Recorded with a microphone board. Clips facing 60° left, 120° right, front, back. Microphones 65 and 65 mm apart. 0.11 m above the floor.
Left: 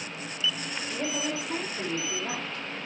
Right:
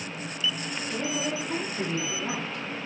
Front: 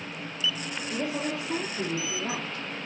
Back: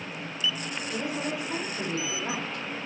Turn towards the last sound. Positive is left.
turn(degrees=-50)